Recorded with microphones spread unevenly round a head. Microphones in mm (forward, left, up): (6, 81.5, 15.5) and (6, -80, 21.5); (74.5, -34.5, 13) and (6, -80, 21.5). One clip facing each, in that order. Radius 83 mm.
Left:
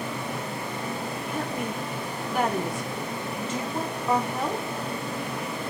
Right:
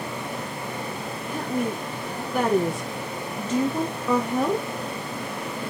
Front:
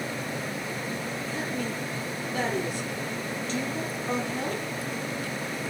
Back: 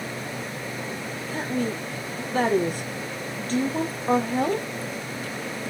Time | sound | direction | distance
1.3 | a woman speaking | 100° right | 0.9 m